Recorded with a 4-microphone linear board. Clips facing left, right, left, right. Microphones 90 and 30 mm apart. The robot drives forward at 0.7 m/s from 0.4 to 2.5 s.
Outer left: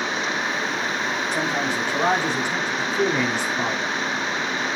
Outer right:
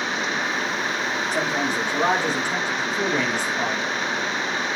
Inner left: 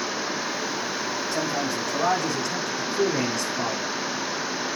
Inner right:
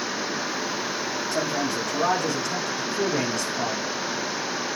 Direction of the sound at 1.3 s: Centre (ahead or behind).